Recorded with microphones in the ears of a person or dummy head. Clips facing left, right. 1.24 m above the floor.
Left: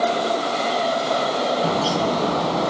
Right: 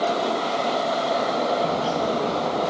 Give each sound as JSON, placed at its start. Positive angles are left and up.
{"t": 1.6, "sound": "a bird", "side_deg": 70, "distance_m": 2.5}